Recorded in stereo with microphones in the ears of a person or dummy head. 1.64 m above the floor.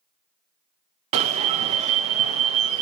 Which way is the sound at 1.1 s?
40° right (ahead or behind).